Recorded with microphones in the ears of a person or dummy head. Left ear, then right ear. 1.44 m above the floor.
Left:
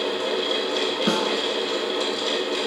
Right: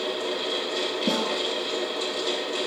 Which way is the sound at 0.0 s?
50° left (ahead or behind).